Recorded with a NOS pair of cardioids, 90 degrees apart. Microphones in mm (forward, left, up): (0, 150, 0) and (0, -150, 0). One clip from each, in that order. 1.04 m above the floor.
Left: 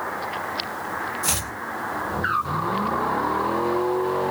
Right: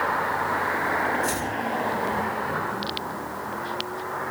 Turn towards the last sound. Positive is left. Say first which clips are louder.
# even
turn(degrees=55)